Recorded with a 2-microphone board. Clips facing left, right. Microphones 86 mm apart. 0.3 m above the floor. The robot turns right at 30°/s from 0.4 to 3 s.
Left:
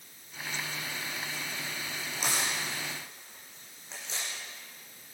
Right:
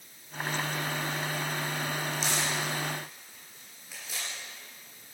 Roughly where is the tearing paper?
Left.